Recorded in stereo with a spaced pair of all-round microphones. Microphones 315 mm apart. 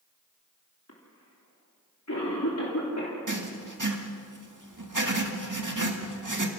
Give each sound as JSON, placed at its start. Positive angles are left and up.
{"t": 0.9, "sound": "a cough", "side_deg": 55, "distance_m": 3.5}
{"t": 3.3, "sound": "writing", "side_deg": -75, "distance_m": 1.9}